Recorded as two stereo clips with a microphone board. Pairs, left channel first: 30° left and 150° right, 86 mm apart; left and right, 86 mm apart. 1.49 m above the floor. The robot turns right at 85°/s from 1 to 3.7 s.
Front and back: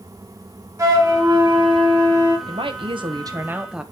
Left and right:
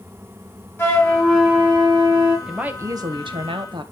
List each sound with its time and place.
0.8 s a flute: 155° left, 4 m; by 2.4 s 90° right, 4 m
2.5 s a woman speaking: 175° right, 1.4 m; by 3.8 s 70° right, 1.4 m